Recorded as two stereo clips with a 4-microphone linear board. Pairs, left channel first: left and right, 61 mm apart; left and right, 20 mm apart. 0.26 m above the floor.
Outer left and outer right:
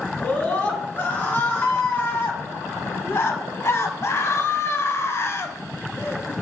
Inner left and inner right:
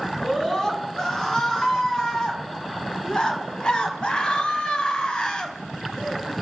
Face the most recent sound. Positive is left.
turn(degrees=35)  # may be behind; listen again after turning